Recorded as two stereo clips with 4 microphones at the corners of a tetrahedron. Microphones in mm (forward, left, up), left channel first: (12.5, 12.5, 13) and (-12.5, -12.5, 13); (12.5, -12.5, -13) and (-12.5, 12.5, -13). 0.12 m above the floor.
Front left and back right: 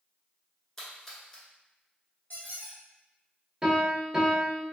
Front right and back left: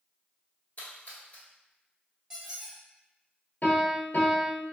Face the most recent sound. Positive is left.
turn(degrees=-65)